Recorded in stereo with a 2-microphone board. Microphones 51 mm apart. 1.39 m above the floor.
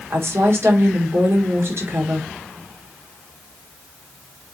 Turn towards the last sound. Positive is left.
turn(degrees=-55)  # may be behind; listen again after turning